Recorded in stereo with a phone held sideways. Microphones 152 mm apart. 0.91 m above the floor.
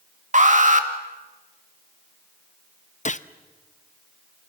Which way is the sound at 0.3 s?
55° right (ahead or behind).